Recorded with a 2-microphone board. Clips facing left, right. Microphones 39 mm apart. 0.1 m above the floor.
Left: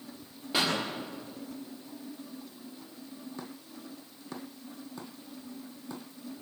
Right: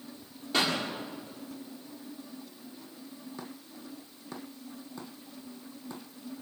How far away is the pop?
About 8 m.